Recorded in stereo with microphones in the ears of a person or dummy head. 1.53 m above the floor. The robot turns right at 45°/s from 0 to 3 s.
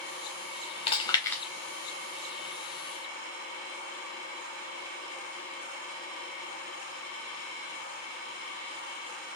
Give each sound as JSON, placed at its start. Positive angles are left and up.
{"t": 0.9, "sound": "chewing", "side_deg": 35, "distance_m": 0.5}